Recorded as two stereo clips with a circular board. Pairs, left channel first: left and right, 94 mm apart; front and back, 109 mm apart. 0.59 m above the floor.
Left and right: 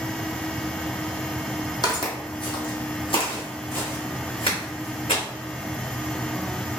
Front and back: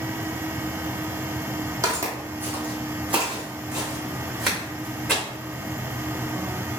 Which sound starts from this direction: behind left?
Footsteps, at 1.8 s.